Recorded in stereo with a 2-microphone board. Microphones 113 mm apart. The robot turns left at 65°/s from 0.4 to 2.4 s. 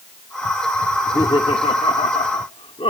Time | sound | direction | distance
0.9 | laughter | 160° left | ?